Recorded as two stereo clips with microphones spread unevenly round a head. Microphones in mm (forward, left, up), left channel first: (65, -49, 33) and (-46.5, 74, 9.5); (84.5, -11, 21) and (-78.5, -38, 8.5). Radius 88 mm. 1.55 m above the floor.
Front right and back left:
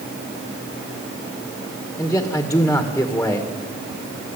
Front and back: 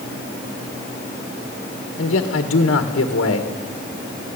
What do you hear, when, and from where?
2.0 s a man speaking: 30° left, 1.8 m